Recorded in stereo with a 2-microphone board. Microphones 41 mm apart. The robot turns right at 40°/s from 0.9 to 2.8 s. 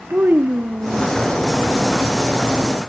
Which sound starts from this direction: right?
A child speaking, at 0.1 s.